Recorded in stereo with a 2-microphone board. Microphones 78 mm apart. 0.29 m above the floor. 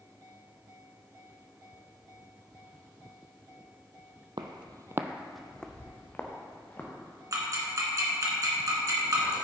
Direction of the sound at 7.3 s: 45° right (ahead or behind).